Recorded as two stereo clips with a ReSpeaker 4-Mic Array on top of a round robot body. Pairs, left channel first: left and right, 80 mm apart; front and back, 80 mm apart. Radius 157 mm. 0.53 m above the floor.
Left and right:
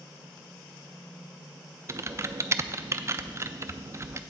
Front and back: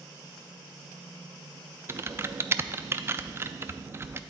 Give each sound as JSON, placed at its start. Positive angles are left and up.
{"t": 1.9, "sound": "typing on a keyboard", "azimuth_deg": -135, "distance_m": 0.5}